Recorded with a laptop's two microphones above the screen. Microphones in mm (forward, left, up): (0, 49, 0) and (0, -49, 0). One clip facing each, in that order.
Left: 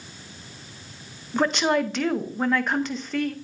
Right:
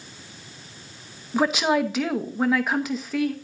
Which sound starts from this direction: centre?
A woman speaking, at 1.3 s.